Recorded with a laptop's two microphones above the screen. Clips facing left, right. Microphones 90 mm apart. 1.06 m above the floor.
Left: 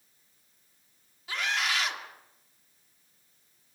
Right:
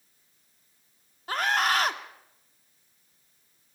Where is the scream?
50° right (ahead or behind), 2.5 m.